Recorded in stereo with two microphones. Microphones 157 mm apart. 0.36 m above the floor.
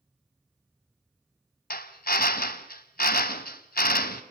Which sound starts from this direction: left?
A drill, at 1.7 s.